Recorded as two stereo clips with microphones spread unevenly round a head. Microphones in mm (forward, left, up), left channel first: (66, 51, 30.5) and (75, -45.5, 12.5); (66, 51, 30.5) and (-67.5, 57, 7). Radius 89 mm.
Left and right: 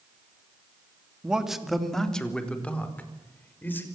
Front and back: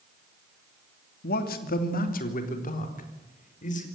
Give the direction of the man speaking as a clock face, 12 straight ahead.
12 o'clock.